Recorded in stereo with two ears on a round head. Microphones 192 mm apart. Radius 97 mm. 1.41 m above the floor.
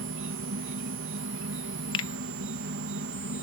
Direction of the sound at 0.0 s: 60° right (ahead or behind).